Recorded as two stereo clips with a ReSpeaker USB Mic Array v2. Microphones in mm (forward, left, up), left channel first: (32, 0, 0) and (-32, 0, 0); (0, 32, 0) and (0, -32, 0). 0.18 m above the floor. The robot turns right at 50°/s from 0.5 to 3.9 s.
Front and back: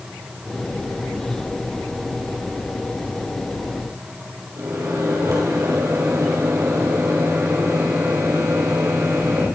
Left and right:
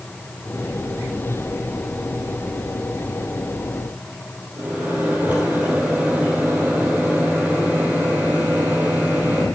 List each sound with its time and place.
4.6 s a microwave: 150° right, 4 m